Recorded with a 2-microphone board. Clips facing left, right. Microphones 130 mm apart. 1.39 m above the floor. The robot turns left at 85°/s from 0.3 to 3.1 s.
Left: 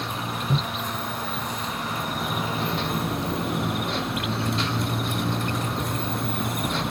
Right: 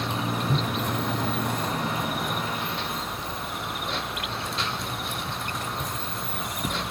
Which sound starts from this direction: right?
A motorcycle, at 0.0 s.